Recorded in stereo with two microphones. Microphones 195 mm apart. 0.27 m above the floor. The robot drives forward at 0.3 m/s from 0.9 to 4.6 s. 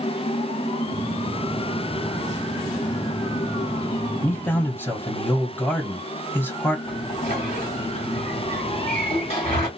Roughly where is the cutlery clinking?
I don't hear cutlery clinking.